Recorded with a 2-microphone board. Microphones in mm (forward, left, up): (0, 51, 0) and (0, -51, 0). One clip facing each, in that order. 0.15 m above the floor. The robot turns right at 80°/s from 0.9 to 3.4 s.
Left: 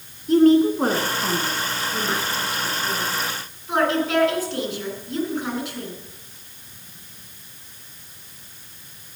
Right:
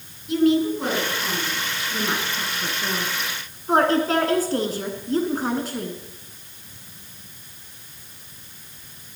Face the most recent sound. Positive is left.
turn(degrees=-40)  # may be behind; listen again after turning